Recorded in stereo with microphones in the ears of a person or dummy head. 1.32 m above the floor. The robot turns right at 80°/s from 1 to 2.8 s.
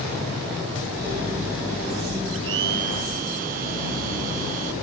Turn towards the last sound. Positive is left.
turn(degrees=-50)